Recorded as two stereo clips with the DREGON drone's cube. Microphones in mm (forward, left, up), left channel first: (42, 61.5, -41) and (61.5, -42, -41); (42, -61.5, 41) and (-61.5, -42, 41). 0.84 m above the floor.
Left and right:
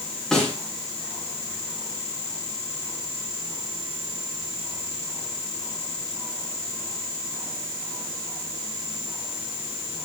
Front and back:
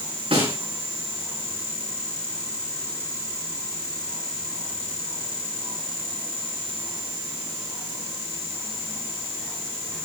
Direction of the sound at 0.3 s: 175° right.